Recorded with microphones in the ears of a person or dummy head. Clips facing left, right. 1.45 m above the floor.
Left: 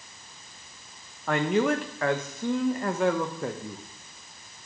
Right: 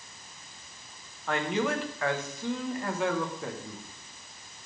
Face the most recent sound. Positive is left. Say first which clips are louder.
# left 5 dB
turn(degrees=50)  # may be behind; listen again after turning